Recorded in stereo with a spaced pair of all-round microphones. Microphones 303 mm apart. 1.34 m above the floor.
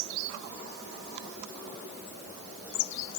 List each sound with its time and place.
Only background noise.